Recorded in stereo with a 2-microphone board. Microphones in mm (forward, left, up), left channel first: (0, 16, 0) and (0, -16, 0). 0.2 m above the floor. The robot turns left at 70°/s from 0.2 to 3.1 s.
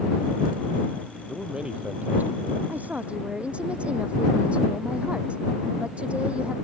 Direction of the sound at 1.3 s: 5° right.